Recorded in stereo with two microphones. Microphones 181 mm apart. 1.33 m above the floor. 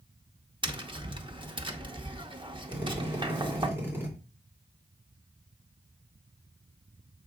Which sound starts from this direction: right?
Tapping, at 0.6 s.